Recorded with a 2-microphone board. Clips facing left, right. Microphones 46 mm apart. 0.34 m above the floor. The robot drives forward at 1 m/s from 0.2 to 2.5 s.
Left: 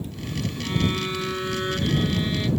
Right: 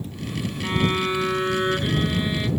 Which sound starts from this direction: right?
A violin, at 0.6 s.